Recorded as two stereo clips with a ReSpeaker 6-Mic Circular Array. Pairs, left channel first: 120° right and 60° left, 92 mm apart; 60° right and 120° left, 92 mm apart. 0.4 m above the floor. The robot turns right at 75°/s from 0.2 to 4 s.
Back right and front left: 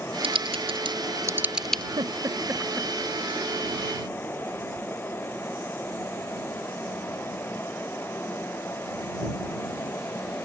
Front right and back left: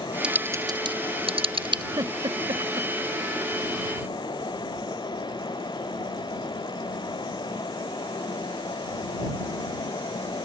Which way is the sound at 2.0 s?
80° left.